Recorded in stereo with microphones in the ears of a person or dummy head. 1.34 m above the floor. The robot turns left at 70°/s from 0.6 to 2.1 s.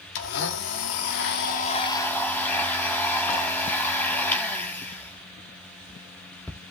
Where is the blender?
115° left, 1.6 m; by 6.6 s 10° left, 1.6 m.